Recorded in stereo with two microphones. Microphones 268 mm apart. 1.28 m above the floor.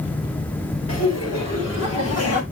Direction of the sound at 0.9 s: 70° left (ahead or behind).